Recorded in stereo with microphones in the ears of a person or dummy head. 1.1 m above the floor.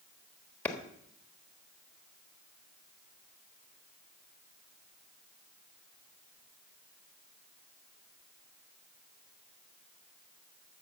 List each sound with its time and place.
0.7 s a clap: 10° left (ahead or behind), 1.3 m